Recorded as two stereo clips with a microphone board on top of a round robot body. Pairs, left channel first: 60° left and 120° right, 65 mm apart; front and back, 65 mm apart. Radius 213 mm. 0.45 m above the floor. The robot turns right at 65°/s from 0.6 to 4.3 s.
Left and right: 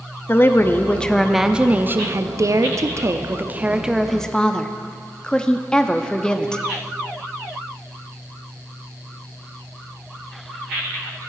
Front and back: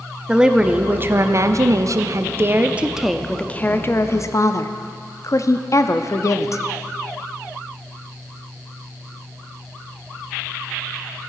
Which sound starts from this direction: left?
A woman speaking, at 0.3 s.